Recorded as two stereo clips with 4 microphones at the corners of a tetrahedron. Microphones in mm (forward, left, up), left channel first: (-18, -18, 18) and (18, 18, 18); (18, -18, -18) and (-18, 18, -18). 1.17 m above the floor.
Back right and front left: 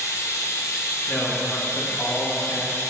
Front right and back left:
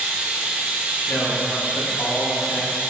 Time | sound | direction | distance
0.0 | running water | 155° right | 0.9 m
1.1 | a man speaking | 65° right | 1.9 m